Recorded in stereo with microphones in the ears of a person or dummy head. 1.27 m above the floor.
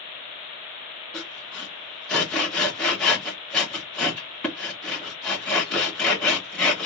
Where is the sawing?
Centre (ahead or behind), 1.3 m.